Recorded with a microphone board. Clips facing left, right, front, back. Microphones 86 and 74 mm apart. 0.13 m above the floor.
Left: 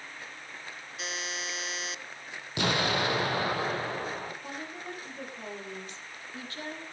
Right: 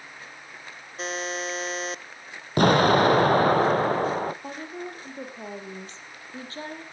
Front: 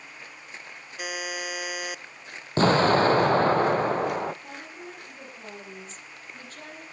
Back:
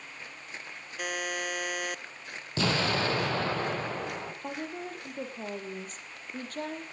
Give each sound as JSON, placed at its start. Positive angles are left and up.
{"t": 1.0, "sound": "a buzzer", "azimuth_deg": -80, "distance_m": 0.5}
{"t": 2.6, "sound": "an explosion", "azimuth_deg": -45, "distance_m": 1.0}
{"t": 4.4, "sound": "a woman speaking", "azimuth_deg": -145, "distance_m": 5.0}